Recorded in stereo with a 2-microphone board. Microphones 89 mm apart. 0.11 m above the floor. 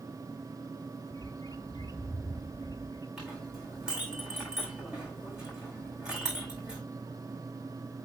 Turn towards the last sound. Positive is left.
turn(degrees=-10)  # may be behind; listen again after turning